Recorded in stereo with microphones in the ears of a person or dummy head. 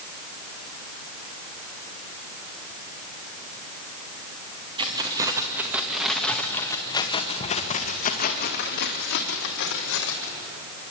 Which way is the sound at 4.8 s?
20° right (ahead or behind).